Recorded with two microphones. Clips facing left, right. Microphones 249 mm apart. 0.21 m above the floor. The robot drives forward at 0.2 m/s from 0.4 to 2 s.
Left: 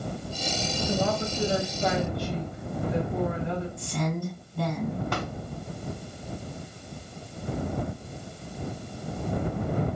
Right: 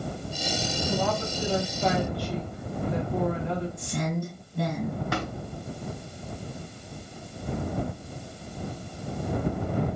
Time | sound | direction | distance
0.8 | a woman speaking | 25° left (ahead or behind) | 1.2 m
3.8 | a woman speaking | 20° right (ahead or behind) | 1.8 m
5.1 | tapping | 5° right (ahead or behind) | 1.5 m